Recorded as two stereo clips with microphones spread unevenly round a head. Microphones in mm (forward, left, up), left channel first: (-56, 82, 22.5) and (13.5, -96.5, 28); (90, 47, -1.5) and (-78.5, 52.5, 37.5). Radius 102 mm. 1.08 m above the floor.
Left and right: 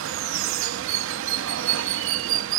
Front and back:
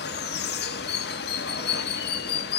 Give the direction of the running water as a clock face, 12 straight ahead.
2 o'clock.